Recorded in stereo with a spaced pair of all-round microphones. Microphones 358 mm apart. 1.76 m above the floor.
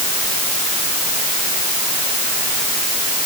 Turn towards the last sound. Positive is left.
No sound to turn to.